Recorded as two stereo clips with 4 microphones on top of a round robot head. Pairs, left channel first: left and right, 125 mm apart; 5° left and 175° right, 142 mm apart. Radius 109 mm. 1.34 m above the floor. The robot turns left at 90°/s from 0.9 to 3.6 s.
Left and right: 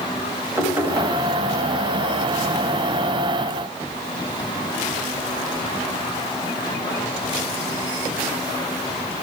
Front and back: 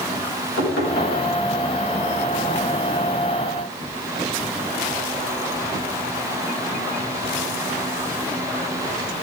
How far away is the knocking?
About 6.5 m.